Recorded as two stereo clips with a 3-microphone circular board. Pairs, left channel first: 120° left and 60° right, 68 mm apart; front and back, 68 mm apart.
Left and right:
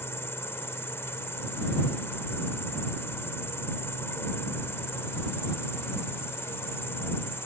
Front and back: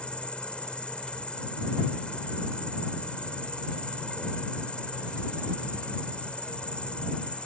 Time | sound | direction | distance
0.0 | an insect | 70° left | ?